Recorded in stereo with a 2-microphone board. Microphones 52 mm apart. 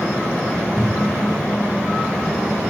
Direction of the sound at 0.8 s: 20° right (ahead or behind).